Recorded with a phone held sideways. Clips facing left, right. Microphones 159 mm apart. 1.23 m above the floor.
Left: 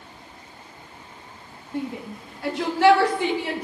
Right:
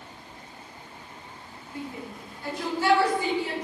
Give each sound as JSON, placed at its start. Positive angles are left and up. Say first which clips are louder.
{"t": 1.7, "sound": "a shout", "louder": "left 7 dB", "side_deg": 65, "distance_m": 1.7}